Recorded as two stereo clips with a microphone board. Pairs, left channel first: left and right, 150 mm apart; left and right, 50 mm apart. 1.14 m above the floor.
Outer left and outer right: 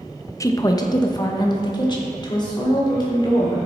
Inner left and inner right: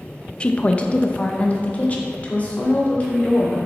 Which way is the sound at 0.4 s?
20° left (ahead or behind).